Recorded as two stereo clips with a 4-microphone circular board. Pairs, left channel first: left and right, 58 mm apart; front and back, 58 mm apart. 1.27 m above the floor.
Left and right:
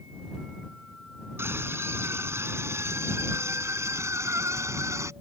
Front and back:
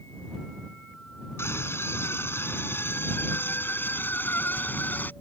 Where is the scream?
45° right; by 5.1 s 60° right.